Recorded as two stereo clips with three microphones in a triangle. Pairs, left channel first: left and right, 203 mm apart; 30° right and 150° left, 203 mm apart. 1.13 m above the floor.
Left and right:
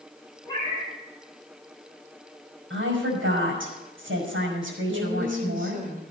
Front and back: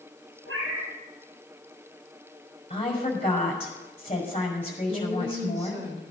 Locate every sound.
0.5 s a cat meowing: 165° left, 6 m
2.7 s a woman speaking: 90° right, 5.5 m
4.9 s a woman speaking: 135° right, 5 m